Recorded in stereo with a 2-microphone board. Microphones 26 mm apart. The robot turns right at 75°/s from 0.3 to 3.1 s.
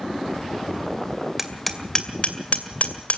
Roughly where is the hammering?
Centre.